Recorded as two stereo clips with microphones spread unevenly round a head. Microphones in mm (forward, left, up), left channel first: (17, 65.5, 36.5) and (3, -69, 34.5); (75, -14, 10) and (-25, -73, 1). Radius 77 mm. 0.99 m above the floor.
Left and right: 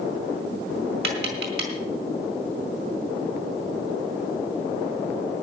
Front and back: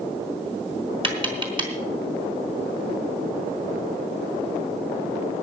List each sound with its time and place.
1.0 s tapping: 100° right, 4 m